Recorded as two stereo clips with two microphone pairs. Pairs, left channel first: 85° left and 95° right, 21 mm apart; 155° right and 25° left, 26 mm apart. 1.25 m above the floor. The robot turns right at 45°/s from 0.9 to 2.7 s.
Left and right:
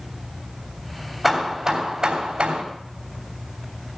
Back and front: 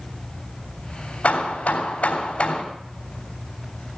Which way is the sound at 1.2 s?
175° right.